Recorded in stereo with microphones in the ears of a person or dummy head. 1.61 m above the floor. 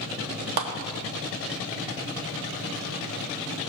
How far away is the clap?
About 1.0 m.